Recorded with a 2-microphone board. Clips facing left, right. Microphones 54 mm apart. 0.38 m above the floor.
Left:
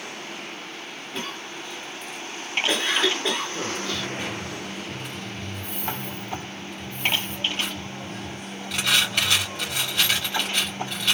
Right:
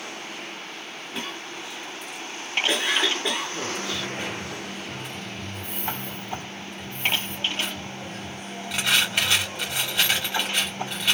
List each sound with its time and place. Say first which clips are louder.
1.1 s a cough: left 1 dB; 5° right (ahead or behind), 1.7 m
3.8 s a dropped coin: left 1 dB; 10° right (ahead or behind), 3 m